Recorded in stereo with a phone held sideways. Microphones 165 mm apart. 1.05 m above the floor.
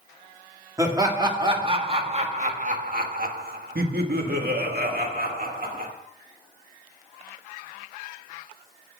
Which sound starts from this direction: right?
Laughter, at 0.8 s.